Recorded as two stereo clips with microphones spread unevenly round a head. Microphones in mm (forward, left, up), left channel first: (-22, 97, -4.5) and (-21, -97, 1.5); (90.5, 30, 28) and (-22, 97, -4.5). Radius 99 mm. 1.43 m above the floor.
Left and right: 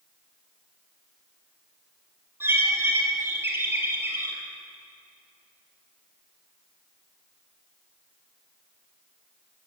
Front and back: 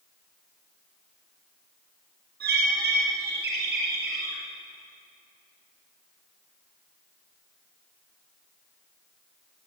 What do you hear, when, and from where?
2.4 s a bird: 170° right, 5 m